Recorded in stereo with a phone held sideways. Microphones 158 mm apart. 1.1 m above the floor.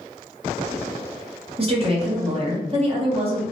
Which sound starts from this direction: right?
A woman speaking, at 1.6 s.